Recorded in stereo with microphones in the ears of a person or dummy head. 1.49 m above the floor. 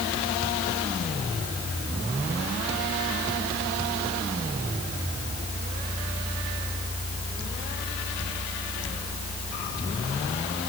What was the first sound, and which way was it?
Only background noise.